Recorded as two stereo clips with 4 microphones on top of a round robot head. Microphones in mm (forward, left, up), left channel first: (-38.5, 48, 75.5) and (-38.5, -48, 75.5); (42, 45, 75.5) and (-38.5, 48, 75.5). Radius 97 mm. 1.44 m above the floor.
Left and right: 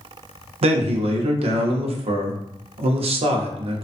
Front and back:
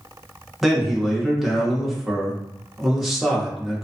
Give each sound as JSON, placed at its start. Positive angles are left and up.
{"t": 0.6, "sound": "a man speaking", "azimuth_deg": -95, "distance_m": 0.6}